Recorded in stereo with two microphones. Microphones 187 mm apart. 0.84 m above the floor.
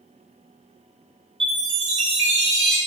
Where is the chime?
75° right (ahead or behind), 1.0 m.